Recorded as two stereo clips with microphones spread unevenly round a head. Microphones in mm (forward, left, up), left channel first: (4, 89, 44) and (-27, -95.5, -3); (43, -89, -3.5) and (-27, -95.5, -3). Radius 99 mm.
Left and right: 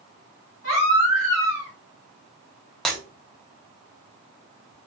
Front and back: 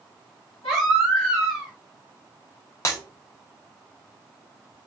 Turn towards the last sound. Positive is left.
turn(degrees=10)